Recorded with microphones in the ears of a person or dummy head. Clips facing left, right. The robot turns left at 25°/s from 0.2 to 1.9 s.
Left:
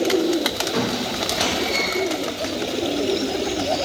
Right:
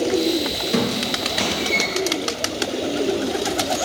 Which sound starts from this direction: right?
A squeak, at 0.7 s.